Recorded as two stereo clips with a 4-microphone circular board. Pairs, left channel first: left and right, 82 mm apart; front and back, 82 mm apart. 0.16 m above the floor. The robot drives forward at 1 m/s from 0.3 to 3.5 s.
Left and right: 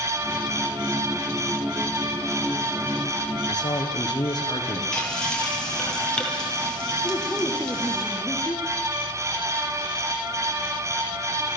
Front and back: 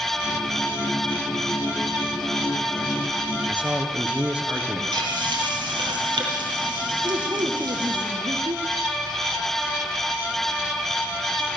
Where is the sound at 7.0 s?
160° left, 3 m.